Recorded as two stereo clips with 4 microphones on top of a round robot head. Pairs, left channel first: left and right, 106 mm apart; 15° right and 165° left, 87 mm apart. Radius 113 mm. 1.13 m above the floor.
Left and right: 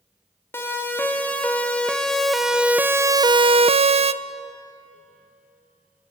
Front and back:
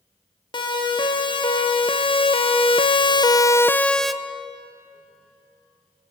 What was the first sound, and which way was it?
A siren, 20° left.